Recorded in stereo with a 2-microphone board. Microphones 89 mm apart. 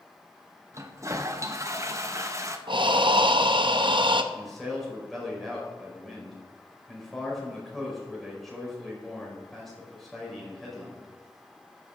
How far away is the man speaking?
About 5 m.